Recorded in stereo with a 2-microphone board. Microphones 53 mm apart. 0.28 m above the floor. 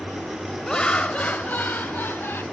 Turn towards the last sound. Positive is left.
turn(degrees=50)  # may be behind; listen again after turning